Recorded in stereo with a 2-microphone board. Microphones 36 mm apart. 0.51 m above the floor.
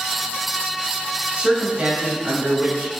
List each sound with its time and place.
1.4 s a man speaking: 25° right (ahead or behind), 2.5 m; by 2.9 s 40° right (ahead or behind), 3.5 m